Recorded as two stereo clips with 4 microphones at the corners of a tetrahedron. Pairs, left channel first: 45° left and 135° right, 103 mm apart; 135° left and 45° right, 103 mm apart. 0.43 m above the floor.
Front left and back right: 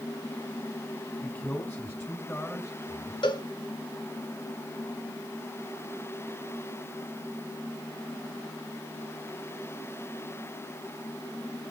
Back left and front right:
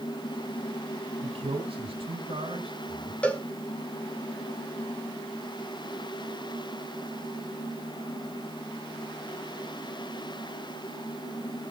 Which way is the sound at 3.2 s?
65° left.